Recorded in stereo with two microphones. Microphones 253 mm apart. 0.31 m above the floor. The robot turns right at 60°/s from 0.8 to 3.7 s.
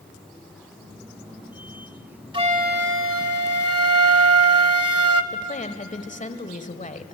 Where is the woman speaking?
30° left (ahead or behind), 1.3 m.